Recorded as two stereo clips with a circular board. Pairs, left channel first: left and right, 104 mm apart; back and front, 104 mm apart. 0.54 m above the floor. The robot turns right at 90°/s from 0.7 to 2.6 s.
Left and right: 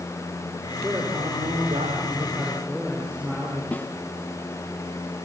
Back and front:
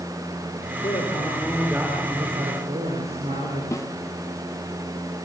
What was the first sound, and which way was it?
A man speaking, 170° right.